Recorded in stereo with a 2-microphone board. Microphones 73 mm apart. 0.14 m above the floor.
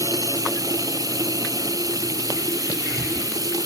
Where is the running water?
55° right (ahead or behind).